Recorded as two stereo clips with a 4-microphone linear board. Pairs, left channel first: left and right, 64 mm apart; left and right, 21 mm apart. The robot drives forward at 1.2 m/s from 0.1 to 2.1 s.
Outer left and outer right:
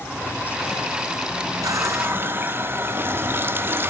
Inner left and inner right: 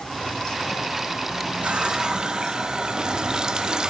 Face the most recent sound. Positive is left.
turn(degrees=-35)  # may be behind; listen again after turning